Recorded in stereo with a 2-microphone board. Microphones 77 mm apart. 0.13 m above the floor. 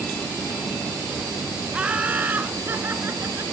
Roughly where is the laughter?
Centre.